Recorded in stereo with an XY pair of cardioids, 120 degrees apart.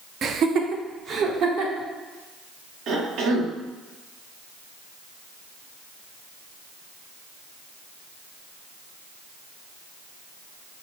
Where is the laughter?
50° right, 0.6 m; by 1.9 s 60° right, 1.6 m.